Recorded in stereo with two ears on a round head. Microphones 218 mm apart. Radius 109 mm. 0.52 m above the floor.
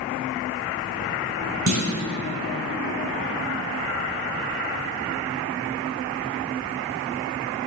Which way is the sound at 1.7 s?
60° right (ahead or behind).